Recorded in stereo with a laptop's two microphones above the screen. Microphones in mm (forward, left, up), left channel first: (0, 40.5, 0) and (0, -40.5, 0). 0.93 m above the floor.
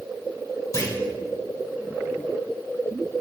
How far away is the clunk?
About 1.3 m.